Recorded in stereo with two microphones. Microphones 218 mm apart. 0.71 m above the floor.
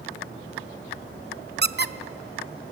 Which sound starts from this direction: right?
A squeak, at 1.6 s.